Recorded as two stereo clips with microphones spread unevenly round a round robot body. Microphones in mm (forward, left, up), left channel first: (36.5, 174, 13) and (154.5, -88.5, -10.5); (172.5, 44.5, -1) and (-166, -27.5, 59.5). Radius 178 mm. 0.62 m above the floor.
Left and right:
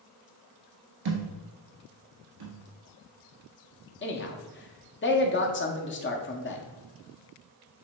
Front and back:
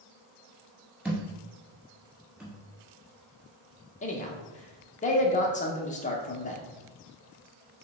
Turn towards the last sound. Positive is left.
turn(degrees=65)